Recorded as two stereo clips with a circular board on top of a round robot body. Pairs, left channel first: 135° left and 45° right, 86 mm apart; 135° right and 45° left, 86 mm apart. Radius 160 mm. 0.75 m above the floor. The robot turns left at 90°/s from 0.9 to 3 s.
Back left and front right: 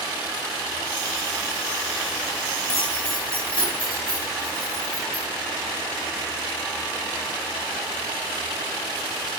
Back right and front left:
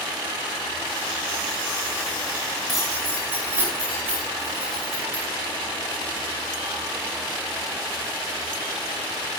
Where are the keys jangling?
140° left, 6 m; by 5.2 s 110° left, 6 m.